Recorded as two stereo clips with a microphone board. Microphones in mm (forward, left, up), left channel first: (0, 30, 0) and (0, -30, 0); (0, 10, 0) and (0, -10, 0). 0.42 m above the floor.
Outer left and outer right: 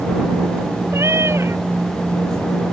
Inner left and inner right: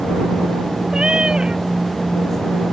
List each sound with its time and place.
0.9 s a cat meowing: 50° right (ahead or behind)